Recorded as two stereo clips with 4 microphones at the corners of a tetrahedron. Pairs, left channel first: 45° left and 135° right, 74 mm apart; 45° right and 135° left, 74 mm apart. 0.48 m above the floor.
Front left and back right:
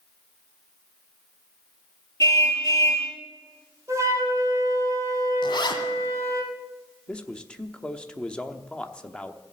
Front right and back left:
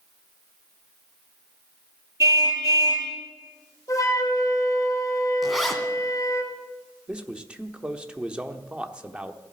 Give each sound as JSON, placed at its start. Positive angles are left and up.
{"t": 2.2, "sound": "a car horn", "azimuth_deg": 90, "distance_m": 6.0}
{"t": 3.9, "sound": "a flute", "azimuth_deg": -85, "distance_m": 3.0}
{"t": 5.4, "sound": "a zipper", "azimuth_deg": 45, "distance_m": 1.8}
{"t": 7.1, "sound": "a man speaking", "azimuth_deg": 90, "distance_m": 0.9}